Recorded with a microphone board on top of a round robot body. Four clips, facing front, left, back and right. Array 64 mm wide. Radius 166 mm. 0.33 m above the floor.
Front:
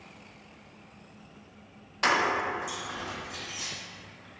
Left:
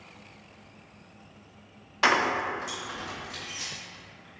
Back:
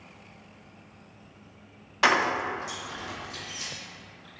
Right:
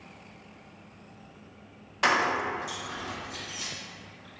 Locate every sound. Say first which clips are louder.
2.0 s keys jangling: left 1 dB, back 2 dB; 160° left, 0.5 m; by 3.7 s 60° left, 2 m